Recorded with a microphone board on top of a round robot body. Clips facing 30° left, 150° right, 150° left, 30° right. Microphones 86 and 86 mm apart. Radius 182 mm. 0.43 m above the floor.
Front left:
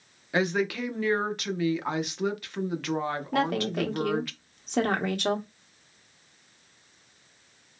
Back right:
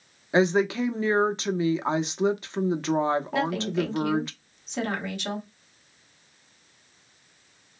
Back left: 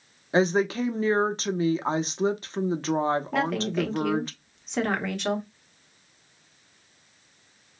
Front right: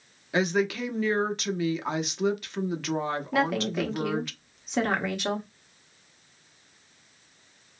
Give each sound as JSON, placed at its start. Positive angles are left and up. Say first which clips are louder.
{"t": 0.3, "sound": "a woman speaking", "louder": "back right 5 dB, back left 3 dB", "azimuth_deg": 170, "distance_m": 0.8}
{"t": 3.3, "sound": "a woman speaking", "louder": "back right 1 dB, even", "azimuth_deg": 55, "distance_m": 1.3}